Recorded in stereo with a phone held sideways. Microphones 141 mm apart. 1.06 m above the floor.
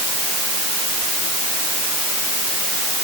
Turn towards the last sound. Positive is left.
No sound to turn to.